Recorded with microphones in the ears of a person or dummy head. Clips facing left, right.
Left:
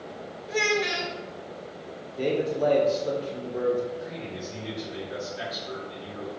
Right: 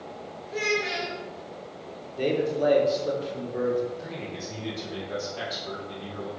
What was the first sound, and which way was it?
A child speaking, 70° left (ahead or behind).